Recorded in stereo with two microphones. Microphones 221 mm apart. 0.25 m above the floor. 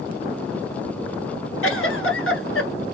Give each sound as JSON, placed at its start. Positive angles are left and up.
{"t": 1.6, "sound": "a giggle", "side_deg": 75, "distance_m": 1.2}